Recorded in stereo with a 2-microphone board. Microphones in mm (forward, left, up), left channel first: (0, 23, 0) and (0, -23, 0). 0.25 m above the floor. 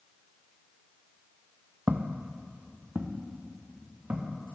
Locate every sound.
1.9 s footsteps: 40° right (ahead or behind), 0.5 m